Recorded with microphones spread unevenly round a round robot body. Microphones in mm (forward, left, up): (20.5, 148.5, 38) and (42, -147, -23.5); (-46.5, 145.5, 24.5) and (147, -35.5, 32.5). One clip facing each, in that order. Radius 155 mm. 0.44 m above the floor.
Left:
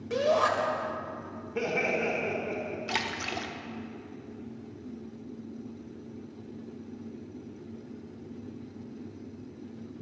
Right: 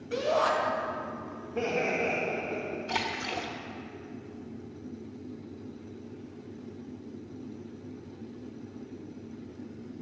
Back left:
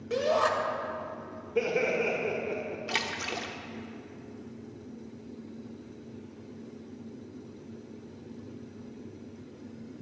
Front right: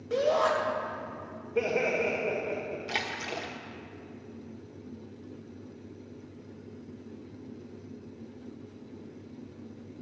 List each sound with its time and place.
0.1 s a shout: 90° left, 2.5 m
1.6 s laughter: 70° left, 1.6 m
2.9 s a splash: 95° left, 0.9 m